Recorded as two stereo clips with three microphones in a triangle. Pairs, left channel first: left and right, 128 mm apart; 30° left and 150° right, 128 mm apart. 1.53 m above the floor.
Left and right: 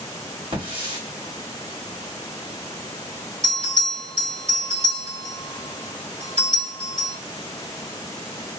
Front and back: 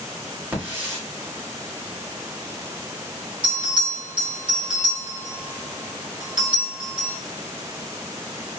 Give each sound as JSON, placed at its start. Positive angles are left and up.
{"t": 0.5, "sound": "a hiss", "azimuth_deg": -80, "distance_m": 1.6}
{"t": 3.4, "sound": "a bell", "azimuth_deg": -105, "distance_m": 2.0}